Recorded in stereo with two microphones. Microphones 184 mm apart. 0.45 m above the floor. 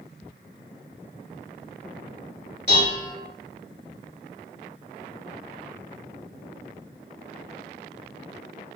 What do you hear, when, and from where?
2.7 s dishes clattering: 65° left (ahead or behind), 1.3 m